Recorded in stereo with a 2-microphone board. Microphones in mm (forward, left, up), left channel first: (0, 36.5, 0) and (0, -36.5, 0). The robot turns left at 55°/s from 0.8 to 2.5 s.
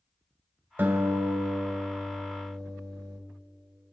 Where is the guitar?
30° right, 1.9 m; by 3.2 s 125° right, 1.9 m.